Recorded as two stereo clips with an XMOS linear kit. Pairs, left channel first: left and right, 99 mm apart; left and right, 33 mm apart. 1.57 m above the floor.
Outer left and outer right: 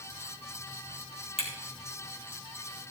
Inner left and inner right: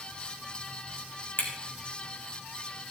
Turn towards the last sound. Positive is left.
turn(degrees=70)  # may be behind; listen again after turning